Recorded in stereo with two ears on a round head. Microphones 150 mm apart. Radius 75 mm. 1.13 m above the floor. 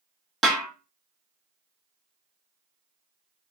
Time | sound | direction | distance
0.4 | a snare drum | centre (ahead or behind) | 1.2 m